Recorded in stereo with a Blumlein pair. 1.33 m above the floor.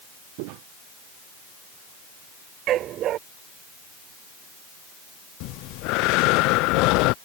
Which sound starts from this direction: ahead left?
Breathing, at 5.4 s.